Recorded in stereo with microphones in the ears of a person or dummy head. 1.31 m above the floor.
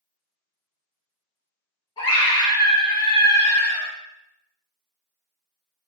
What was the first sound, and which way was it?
A scream, 30° left (ahead or behind).